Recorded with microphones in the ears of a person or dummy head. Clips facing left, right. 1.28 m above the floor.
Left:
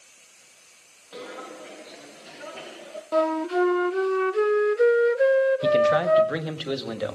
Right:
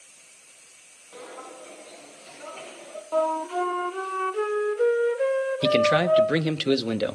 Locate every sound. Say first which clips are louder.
1.1 s footsteps: left 3 dB; 15° left (ahead or behind), 1.2 m
3.1 s a flute: left 3 dB; 25° left (ahead or behind), 0.7 m
5.6 s a man speaking: left 1 dB; 35° right (ahead or behind), 1.0 m